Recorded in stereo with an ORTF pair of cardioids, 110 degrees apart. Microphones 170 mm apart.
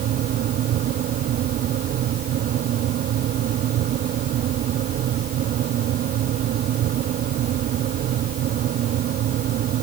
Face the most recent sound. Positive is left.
turn(degrees=-60)